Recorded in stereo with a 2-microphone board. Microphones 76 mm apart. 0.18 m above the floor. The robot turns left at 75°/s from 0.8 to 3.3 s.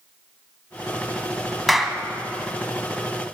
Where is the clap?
Centre (ahead or behind), 0.8 m; by 2.0 s 10° right (ahead or behind), 0.8 m.